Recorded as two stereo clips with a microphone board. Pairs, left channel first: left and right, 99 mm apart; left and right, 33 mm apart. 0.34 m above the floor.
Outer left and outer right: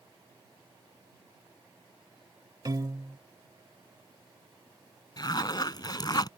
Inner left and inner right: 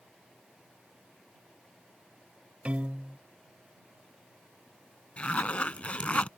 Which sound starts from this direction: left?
A zipper, at 5.2 s.